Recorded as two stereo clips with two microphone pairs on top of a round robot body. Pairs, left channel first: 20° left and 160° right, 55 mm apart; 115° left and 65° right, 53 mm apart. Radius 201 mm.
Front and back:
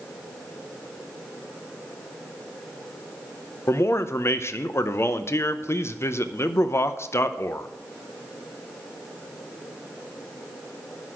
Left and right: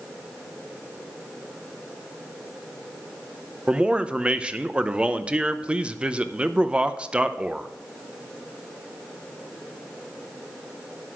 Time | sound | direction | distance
3.7 | a man speaking | straight ahead | 0.8 m